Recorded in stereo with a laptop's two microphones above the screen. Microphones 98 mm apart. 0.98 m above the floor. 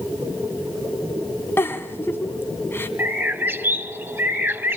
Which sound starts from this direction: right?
A bird, at 3.0 s.